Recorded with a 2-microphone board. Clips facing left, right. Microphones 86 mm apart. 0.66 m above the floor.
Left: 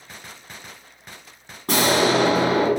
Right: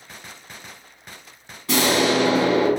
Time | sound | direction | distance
1.7 | an explosion | 45° left (ahead or behind) | 1.4 m